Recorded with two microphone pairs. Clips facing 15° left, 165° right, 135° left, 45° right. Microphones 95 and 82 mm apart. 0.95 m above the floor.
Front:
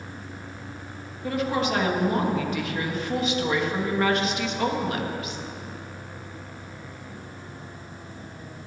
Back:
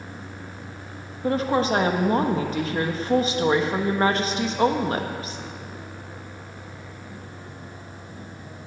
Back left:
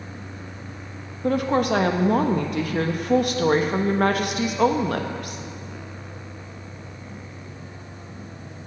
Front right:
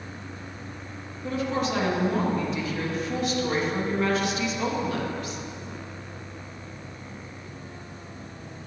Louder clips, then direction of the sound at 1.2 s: Back 4 dB, back left 6 dB; 145° left.